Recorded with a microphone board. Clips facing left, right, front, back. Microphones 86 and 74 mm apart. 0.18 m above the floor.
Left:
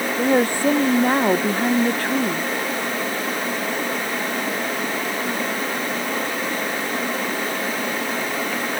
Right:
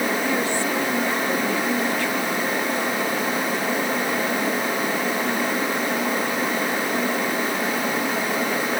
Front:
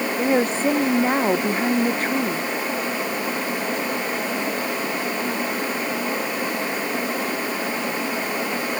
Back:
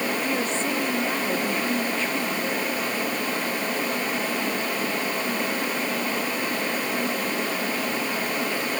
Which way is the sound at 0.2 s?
50° left.